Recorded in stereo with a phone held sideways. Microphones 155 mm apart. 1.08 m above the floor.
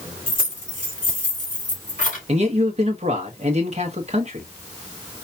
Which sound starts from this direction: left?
Keys jangling, at 0.3 s.